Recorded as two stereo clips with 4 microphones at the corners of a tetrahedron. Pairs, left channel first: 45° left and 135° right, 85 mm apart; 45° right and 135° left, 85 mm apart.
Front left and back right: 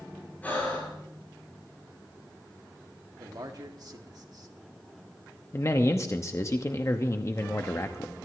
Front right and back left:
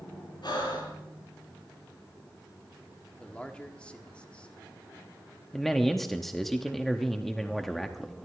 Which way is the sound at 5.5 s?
40° left.